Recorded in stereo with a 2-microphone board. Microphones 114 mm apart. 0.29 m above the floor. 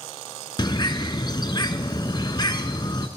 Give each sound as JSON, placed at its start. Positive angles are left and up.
{"t": 0.6, "sound": "a bird", "side_deg": 40, "distance_m": 0.7}